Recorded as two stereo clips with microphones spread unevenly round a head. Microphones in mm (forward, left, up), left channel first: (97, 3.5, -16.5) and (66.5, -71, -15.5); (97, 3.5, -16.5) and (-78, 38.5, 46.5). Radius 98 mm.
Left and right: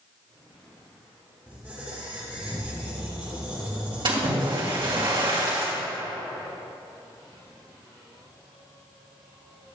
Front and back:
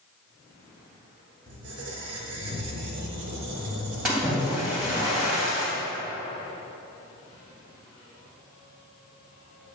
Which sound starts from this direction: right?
A splash, at 4.0 s.